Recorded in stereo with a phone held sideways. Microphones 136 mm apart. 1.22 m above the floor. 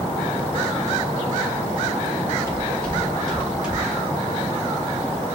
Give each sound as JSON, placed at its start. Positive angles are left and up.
{"t": 2.5, "sound": "footsteps", "side_deg": 15, "distance_m": 3.0}